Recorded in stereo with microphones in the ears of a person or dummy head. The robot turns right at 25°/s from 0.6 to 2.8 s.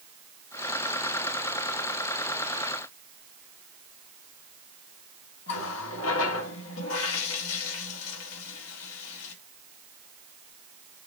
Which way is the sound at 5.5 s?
85° left.